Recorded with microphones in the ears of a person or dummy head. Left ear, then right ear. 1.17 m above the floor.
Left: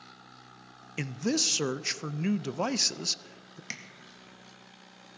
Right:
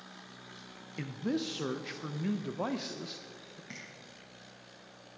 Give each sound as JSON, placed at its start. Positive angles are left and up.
{"t": 1.0, "sound": "a man speaking", "side_deg": 85, "distance_m": 0.5}
{"t": 3.7, "sound": "tapping", "side_deg": 65, "distance_m": 1.9}